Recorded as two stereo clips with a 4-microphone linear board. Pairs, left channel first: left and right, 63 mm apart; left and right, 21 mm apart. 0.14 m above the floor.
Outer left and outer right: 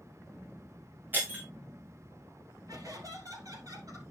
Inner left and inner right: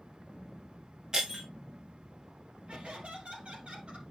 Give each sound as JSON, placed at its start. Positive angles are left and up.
{"t": 1.1, "sound": "breaking glass", "side_deg": -30, "distance_m": 4.0}
{"t": 2.7, "sound": "laughter", "side_deg": -70, "distance_m": 4.0}